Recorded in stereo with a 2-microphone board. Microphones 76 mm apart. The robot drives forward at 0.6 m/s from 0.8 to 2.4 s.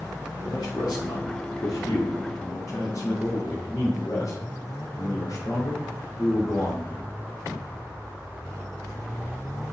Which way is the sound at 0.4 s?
65° left (ahead or behind).